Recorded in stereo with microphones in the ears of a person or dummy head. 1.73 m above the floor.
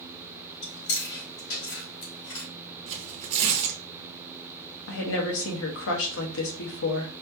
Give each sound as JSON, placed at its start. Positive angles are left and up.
{"t": 0.6, "sound": "chewing", "side_deg": 75, "distance_m": 3.0}
{"t": 2.9, "sound": "tearing paper", "side_deg": -35, "distance_m": 0.8}
{"t": 4.9, "sound": "a woman speaking", "side_deg": 70, "distance_m": 1.3}